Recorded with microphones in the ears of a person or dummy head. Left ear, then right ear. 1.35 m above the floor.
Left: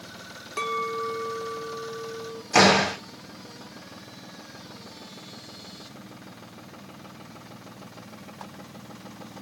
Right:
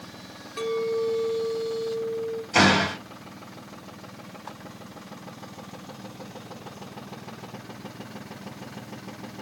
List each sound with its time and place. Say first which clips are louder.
0.6 s a clink: right 2 dB; 30° left (ahead or behind), 0.8 m
2.5 s a door slam: left 2 dB; 45° left (ahead or behind), 2 m